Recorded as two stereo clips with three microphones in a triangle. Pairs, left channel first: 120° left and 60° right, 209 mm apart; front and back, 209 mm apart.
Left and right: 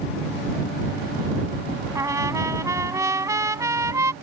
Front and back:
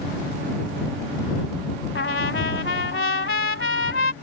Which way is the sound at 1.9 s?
15° left.